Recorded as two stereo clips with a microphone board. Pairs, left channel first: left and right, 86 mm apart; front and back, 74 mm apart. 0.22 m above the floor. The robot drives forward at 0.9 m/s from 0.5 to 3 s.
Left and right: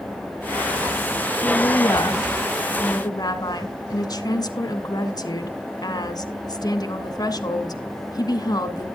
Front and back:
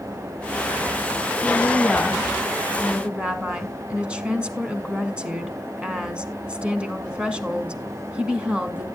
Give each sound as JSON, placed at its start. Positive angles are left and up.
{"t": 1.4, "sound": "a woman speaking", "azimuth_deg": 55, "distance_m": 2.0}